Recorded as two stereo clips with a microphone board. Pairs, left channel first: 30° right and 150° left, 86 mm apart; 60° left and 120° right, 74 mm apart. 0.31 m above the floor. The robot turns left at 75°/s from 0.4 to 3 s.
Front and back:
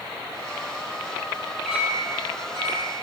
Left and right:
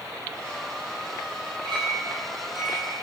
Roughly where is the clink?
Behind right.